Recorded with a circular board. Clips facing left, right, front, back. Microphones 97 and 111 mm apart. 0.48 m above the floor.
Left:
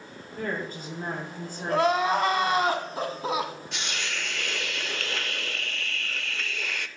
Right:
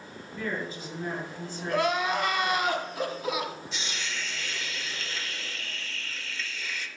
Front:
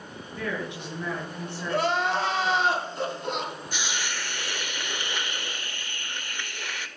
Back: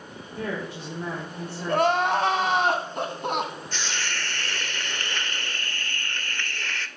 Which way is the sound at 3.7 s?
75° left.